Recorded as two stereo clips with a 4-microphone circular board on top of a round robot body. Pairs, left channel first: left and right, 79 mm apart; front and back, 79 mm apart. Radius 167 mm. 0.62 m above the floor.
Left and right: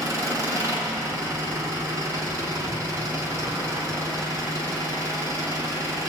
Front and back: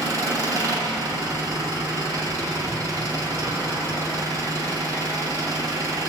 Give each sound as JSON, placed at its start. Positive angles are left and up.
{"t": 0.0, "sound": "an engine running", "azimuth_deg": -135, "distance_m": 7.0}